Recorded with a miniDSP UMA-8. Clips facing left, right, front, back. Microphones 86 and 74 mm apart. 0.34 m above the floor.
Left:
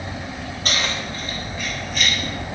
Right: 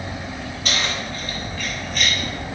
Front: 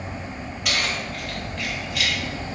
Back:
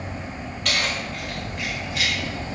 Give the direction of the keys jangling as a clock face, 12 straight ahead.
9 o'clock.